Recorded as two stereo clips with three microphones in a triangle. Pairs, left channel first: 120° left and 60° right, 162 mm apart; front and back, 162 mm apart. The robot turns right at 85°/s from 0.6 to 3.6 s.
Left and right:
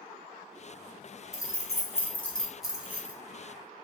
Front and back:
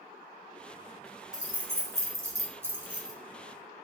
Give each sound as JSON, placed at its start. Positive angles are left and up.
{"t": 1.3, "sound": "keys jangling", "azimuth_deg": 105, "distance_m": 0.5}